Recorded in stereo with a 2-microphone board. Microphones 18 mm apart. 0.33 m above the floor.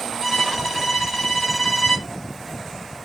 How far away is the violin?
About 2.5 m.